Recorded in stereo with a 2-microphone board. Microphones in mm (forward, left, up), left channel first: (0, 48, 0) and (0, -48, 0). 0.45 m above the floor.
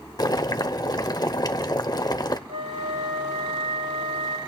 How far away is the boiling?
About 0.8 m.